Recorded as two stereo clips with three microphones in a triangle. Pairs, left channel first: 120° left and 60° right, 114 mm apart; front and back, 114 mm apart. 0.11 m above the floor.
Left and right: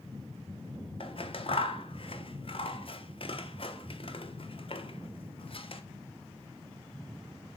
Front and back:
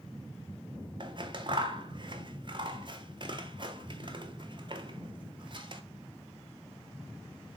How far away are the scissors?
About 0.7 m.